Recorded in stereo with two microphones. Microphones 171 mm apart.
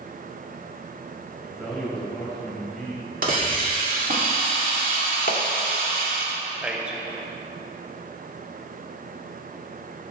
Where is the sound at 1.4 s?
Centre (ahead or behind), 3.5 m.